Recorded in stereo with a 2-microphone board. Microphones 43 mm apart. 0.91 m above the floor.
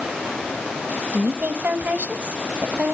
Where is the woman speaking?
40° right (ahead or behind), 0.7 m.